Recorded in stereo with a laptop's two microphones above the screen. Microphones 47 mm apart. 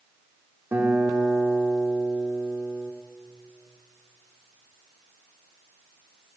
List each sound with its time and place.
0.7 s a guitar: 55° right (ahead or behind), 1.8 m